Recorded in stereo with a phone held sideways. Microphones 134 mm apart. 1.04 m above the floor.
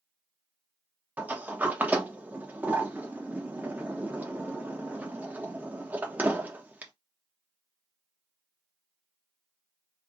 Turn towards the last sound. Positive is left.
turn(degrees=-10)  # may be behind; listen again after turning